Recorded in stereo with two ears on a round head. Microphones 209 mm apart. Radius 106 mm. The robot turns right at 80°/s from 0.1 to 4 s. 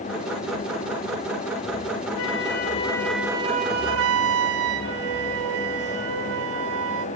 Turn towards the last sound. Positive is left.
turn(degrees=-110)